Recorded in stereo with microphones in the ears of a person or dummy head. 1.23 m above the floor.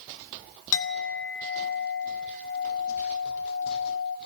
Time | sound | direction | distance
0.7 | a clink | 70° left (ahead or behind) | 1.8 m